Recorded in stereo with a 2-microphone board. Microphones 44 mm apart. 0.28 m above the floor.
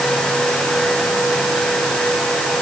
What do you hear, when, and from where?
Only background noise.